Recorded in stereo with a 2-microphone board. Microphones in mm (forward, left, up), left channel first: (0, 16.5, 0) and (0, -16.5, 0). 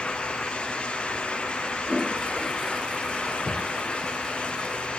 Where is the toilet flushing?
15° right (ahead or behind).